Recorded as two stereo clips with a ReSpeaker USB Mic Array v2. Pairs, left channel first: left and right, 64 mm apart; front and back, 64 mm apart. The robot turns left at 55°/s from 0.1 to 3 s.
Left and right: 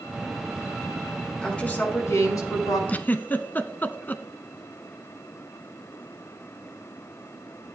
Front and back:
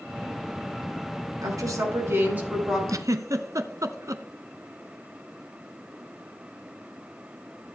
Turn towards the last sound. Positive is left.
turn(degrees=150)